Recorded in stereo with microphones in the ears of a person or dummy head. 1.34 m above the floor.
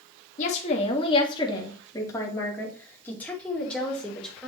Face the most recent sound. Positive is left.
turn(degrees=5)  # may be behind; listen again after turning